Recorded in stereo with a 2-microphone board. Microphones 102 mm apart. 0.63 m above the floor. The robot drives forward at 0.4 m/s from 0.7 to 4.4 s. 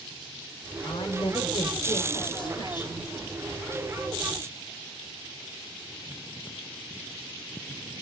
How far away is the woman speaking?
About 2.5 m.